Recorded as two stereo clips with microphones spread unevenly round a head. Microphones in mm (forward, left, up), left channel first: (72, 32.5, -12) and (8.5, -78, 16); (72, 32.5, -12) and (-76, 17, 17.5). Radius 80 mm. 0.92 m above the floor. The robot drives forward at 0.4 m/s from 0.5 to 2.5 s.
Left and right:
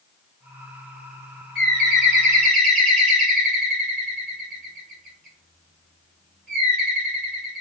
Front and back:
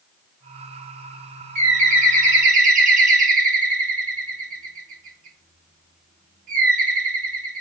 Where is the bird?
140° left, 1.1 m; by 7.6 s 155° left, 1.4 m.